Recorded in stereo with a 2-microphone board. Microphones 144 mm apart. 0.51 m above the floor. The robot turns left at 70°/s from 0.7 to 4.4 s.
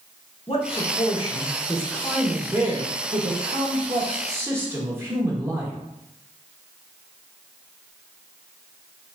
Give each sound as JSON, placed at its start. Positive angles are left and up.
{"t": 0.5, "sound": "a man speaking", "azimuth_deg": 105, "distance_m": 1.1}